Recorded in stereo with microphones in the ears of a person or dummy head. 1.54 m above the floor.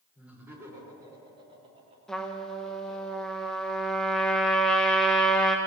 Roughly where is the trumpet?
Centre.